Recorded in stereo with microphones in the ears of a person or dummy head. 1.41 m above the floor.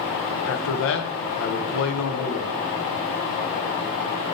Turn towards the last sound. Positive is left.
turn(degrees=70)  # may be behind; listen again after turning